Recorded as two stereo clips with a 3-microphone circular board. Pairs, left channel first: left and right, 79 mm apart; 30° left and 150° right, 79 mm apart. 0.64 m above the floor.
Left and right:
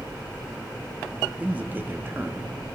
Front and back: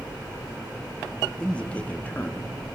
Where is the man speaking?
40° right, 0.8 m; by 2.5 s 35° right, 1.3 m.